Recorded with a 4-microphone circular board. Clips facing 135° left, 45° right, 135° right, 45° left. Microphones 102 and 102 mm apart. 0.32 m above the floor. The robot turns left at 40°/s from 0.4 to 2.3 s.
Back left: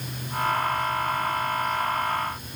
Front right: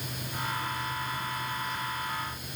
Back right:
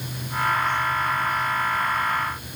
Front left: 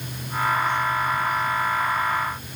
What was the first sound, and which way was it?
Only background noise.